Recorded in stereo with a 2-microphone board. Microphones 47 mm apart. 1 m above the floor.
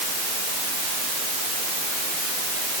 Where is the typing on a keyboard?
I don't hear typing on a keyboard.